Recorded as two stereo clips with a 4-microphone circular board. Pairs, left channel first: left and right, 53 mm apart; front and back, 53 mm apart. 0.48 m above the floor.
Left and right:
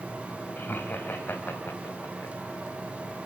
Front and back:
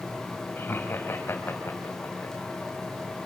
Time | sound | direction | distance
0.6 | laughter | 40° left | 3 m